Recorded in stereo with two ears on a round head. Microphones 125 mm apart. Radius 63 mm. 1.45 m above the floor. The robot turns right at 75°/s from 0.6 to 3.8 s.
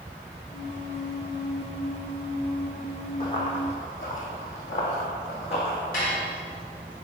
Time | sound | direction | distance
3.2 | running footsteps | 30° left (ahead or behind) | 2.5 m
5.9 | dishes clattering | 70° left (ahead or behind) | 3.5 m